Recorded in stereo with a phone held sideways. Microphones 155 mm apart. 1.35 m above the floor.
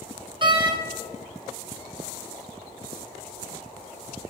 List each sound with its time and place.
0.4 s a door slam: 30° right (ahead or behind), 0.9 m